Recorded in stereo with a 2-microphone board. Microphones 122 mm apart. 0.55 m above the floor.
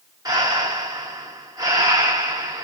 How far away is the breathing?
About 0.9 m.